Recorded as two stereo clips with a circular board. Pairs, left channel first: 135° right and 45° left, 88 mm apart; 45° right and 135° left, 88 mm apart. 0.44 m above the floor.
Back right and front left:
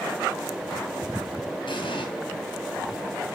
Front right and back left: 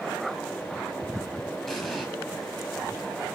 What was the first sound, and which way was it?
An explosion, 135° right.